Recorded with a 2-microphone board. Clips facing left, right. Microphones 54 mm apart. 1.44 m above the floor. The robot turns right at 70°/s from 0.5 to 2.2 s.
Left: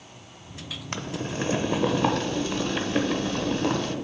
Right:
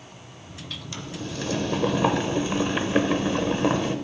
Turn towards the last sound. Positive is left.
turn(degrees=-160)